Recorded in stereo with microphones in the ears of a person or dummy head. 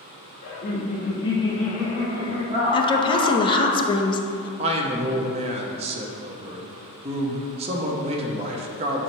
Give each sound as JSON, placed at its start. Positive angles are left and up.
{"t": 0.4, "sound": "laughter", "side_deg": 50, "distance_m": 1.2}
{"t": 2.7, "sound": "a woman speaking", "side_deg": 25, "distance_m": 0.6}
{"t": 4.6, "sound": "a man speaking", "side_deg": -30, "distance_m": 0.7}